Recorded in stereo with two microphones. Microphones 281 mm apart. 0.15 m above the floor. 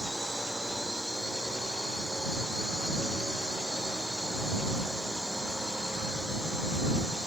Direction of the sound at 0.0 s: Centre (ahead or behind).